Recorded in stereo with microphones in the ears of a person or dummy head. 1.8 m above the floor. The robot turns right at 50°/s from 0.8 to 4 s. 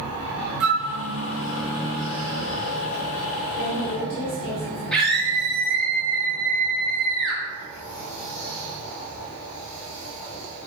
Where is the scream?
Centre (ahead or behind), 1.2 m.